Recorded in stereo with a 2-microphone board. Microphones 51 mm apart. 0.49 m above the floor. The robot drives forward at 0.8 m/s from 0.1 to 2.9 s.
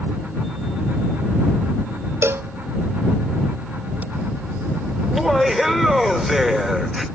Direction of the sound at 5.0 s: Centre (ahead or behind).